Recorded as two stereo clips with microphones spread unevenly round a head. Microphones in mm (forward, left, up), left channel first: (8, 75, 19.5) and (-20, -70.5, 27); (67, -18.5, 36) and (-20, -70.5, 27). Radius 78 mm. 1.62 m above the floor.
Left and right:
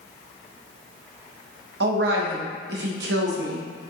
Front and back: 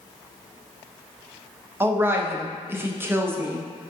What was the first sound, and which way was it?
A woman speaking, 80° right.